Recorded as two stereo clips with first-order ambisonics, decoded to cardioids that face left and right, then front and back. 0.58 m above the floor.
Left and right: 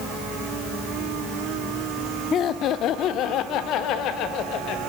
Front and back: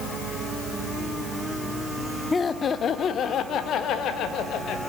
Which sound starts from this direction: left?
Laughter, at 2.3 s.